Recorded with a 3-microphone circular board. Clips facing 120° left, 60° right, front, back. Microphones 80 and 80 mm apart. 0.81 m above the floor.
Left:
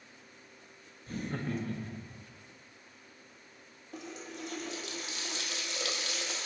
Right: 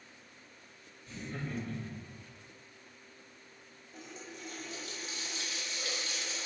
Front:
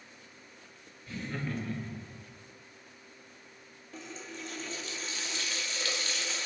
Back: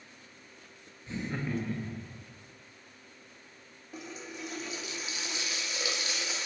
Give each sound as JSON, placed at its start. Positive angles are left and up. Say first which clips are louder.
{"t": 1.1, "sound": "laughter", "louder": "left 5 dB, back 2 dB", "azimuth_deg": 125, "distance_m": 0.7}
{"t": 3.9, "sound": "a running tap", "louder": "left 5 dB, back 1 dB", "azimuth_deg": 105, "distance_m": 1.0}